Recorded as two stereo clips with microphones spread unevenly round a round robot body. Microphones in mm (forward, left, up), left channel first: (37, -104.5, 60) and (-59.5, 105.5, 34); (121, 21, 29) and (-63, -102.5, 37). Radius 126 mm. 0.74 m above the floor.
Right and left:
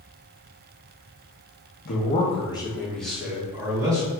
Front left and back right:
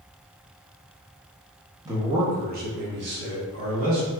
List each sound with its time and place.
1.9 s a man speaking: 80° right, 0.8 m; by 4.1 s 175° right, 1.6 m